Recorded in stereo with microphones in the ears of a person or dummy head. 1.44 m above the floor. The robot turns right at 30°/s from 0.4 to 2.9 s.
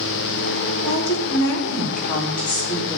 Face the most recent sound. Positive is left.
turn(degrees=150)